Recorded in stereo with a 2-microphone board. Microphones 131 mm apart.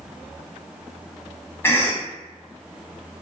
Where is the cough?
20° left (ahead or behind), 1.0 m.